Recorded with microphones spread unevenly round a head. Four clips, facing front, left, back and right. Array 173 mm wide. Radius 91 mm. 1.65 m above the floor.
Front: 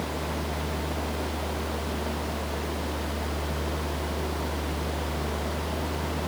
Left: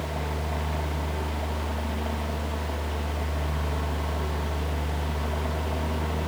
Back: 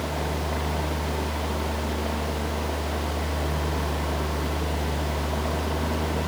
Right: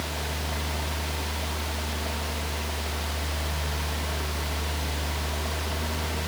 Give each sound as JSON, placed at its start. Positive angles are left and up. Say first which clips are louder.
{"t": 0.0, "sound": "a fan", "louder": "left 2 dB, back 2 dB", "azimuth_deg": 155}